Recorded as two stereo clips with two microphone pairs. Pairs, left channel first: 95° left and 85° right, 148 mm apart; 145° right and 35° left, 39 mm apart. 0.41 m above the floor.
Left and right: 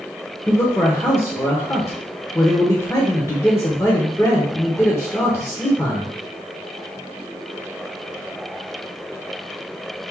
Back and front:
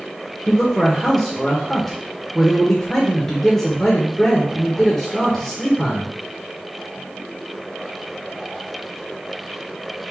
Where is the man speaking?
145° left, 1.0 m.